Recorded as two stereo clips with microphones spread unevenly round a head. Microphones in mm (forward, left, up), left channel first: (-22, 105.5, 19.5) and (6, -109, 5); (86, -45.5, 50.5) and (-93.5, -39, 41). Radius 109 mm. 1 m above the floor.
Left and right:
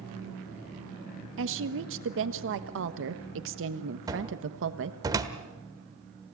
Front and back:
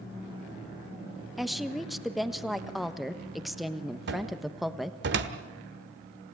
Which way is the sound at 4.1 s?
155° right.